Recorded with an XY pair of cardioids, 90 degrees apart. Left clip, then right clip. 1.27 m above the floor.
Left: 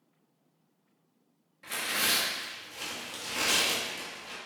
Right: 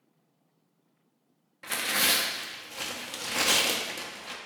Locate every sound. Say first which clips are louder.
1.6 s tearing paper: right 3 dB; 55° right, 0.5 m